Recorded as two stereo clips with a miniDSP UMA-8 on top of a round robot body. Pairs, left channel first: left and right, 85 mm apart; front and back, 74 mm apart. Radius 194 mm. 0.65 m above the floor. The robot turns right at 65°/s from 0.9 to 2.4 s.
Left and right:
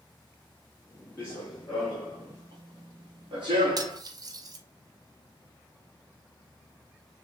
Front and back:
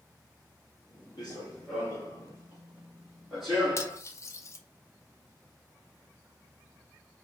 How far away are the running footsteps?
About 0.9 m.